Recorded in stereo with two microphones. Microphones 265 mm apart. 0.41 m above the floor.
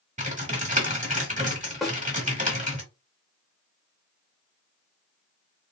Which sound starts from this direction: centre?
A snare drum, at 1.8 s.